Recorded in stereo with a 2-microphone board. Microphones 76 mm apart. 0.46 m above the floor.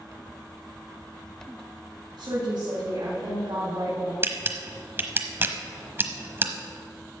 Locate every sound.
2.2 s a woman speaking: 70° right (ahead or behind), 3.5 m; by 4.1 s 55° right (ahead or behind), 3.5 m
4.2 s a camera shutter: 30° right (ahead or behind), 0.9 m